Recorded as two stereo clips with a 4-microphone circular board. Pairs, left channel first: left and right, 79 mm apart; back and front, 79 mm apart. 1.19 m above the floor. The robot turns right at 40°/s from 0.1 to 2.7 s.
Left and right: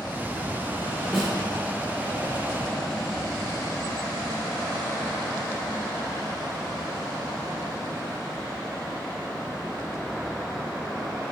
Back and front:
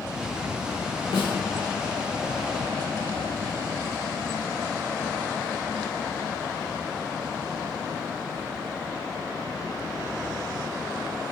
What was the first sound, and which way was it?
A snare drum, 175° right.